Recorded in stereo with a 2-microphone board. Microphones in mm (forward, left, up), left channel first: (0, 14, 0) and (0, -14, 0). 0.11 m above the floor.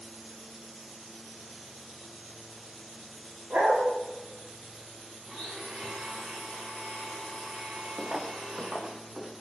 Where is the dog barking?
85° right, 8.5 m.